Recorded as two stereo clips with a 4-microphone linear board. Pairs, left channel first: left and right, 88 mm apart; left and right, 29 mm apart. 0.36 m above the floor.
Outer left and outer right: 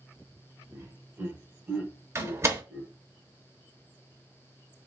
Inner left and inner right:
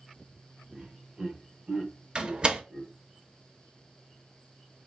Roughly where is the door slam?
Right.